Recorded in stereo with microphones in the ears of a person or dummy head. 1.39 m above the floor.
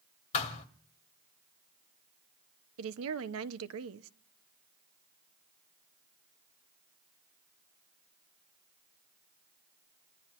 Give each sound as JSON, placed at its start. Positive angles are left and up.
{"t": 0.3, "sound": "a thud", "side_deg": 40, "distance_m": 1.9}
{"t": 2.8, "sound": "a woman speaking", "side_deg": -80, "distance_m": 0.9}